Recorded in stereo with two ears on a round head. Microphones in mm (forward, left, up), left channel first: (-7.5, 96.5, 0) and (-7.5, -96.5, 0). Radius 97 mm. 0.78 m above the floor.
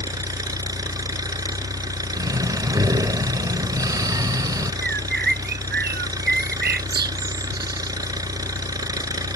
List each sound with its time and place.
0.0 s an engine running: 15° right (ahead or behind)
2.1 s breathing: 15° right (ahead or behind)
4.8 s a bird: 50° right (ahead or behind)